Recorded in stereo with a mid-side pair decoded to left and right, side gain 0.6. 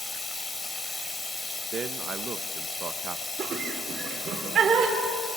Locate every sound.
0.0 s running water: 25° left, 3 m
1.7 s a man speaking: 40° right, 1.0 m
3.4 s laughter: 40° right, 3.5 m